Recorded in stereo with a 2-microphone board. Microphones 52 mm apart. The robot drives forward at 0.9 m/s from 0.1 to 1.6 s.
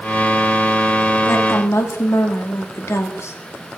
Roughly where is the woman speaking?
Left.